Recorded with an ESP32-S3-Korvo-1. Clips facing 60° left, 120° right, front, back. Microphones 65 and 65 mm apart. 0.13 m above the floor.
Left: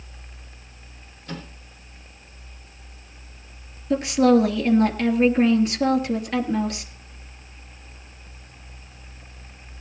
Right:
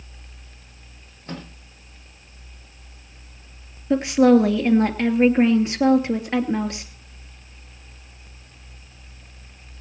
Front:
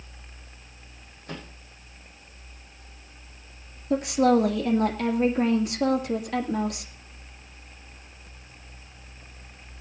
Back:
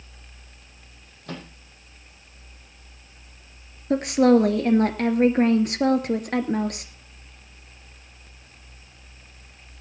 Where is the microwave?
175° right, 4.5 m.